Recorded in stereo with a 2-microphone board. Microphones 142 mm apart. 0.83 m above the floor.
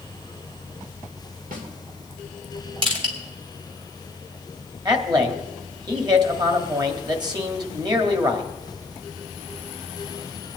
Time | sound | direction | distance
1.5 | a snare drum | 80° right | 2.5 m
2.8 | crushing | 40° right (ahead or behind) | 3 m
4.8 | a man speaking | 30° right (ahead or behind) | 1.9 m